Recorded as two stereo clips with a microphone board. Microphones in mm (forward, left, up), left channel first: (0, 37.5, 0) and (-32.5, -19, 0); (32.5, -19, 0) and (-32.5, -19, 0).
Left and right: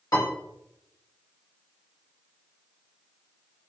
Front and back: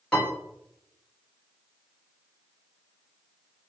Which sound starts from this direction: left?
A piano, at 0.1 s.